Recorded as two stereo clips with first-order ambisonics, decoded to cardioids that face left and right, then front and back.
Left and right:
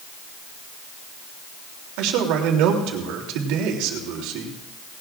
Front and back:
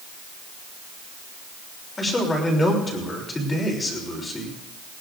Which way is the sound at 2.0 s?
75° right.